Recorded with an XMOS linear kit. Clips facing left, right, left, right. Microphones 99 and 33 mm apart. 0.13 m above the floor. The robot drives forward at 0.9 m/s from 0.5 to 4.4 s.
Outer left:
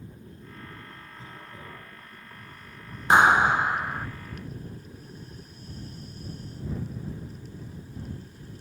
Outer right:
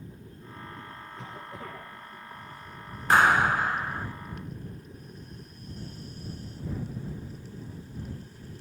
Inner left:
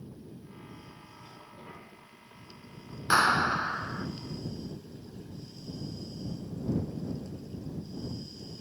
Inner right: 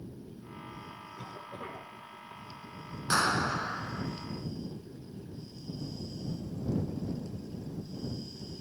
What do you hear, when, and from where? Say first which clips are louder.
1.2 s a cough: outer right 5 dB, inner right 7 dB; 75° right (ahead or behind), 4.5 m
3.1 s a clap: outer left 2 dB, inner left 4 dB; 20° left (ahead or behind), 0.9 m; by 4.1 s 15° left (ahead or behind), 1.1 m